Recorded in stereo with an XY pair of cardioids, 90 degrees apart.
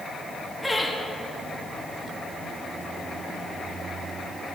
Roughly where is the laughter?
Ahead.